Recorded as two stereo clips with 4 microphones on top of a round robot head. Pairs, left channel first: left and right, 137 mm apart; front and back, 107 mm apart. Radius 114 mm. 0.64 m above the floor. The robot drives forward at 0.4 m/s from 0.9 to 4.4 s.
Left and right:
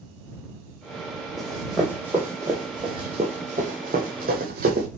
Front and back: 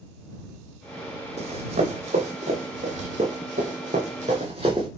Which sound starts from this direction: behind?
Running footsteps, at 1.4 s.